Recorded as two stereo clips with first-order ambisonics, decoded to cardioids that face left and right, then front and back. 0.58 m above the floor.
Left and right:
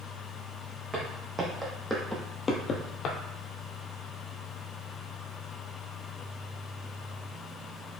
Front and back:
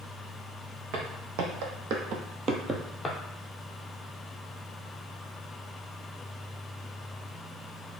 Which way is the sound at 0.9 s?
160° right.